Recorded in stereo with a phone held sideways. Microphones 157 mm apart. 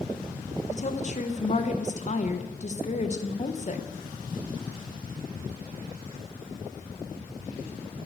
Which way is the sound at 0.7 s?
50° left (ahead or behind).